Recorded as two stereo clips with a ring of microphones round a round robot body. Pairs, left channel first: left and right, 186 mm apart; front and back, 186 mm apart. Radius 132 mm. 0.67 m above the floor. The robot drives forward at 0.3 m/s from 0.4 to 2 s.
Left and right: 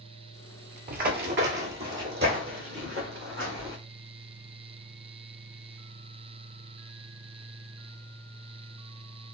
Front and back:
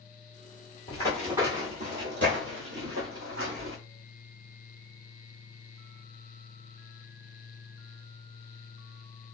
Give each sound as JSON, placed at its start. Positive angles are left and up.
{"t": 0.9, "sound": "running footsteps", "azimuth_deg": -65, "distance_m": 1.0}